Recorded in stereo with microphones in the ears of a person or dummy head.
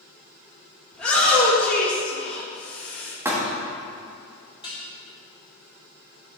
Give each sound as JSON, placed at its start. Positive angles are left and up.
{"t": 0.9, "sound": "a shout", "side_deg": 10, "distance_m": 2.0}
{"t": 3.2, "sound": "a thud", "side_deg": -10, "distance_m": 1.2}
{"t": 4.6, "sound": "dishes clattering", "side_deg": 25, "distance_m": 1.9}